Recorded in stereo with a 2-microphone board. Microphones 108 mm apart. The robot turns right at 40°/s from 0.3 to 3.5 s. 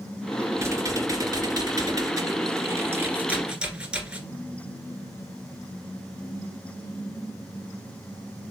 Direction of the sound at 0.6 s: 130° right.